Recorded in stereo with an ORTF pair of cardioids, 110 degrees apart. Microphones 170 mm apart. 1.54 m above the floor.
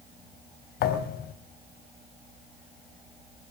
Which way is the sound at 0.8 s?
70° left.